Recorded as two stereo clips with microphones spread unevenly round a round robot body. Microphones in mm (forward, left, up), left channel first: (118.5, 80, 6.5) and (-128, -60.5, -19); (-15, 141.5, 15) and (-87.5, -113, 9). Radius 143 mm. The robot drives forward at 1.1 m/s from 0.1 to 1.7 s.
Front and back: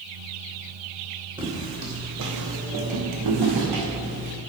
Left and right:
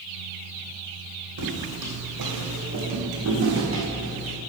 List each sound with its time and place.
1.4 s footsteps: 75° right, 3 m; by 4.3 s 155° right, 4 m